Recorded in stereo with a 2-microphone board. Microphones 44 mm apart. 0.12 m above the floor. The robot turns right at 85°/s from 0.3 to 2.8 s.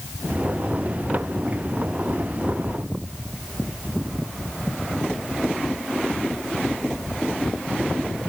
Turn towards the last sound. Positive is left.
No sound to turn to.